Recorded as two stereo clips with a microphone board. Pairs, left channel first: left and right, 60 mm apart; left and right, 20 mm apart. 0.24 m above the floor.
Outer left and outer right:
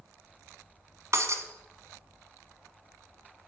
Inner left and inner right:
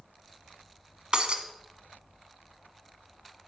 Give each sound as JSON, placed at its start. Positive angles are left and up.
{"t": 1.1, "sound": "breaking glass", "side_deg": -55, "distance_m": 1.2}